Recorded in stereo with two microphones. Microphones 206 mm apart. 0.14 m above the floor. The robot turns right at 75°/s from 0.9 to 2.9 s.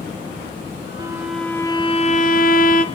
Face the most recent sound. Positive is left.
turn(degrees=115)